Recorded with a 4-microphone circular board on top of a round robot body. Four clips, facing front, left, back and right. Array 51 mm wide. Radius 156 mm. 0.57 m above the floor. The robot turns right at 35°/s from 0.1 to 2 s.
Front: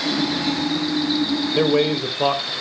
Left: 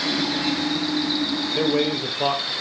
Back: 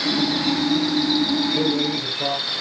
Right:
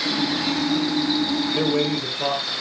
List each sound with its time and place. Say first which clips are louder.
1.6 s a man speaking: left 3 dB, front 4 dB; straight ahead, 3.5 m; by 2.5 s 15° left, 3.5 m